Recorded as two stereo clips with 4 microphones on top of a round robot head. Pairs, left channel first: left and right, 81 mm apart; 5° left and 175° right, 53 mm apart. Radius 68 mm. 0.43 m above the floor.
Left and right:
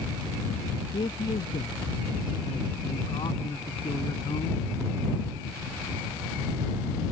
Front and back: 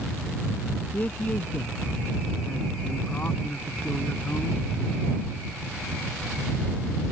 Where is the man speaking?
60° left.